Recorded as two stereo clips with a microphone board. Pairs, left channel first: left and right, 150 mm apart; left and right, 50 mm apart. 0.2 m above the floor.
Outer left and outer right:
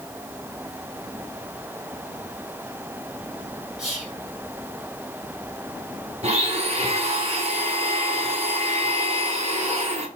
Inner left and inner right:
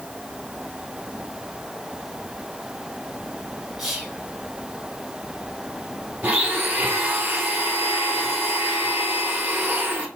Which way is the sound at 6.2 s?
50° right (ahead or behind).